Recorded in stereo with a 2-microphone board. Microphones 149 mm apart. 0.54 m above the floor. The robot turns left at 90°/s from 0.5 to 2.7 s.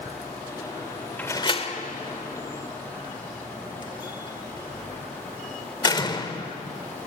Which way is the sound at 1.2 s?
10° left (ahead or behind).